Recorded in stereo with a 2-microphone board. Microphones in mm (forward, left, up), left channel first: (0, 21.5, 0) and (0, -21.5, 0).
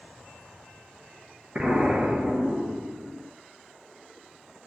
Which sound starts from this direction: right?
An explosion, at 1.6 s.